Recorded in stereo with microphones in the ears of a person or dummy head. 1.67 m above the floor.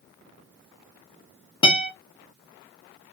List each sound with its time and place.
1.6 s a guitar: 30° left (ahead or behind), 0.7 m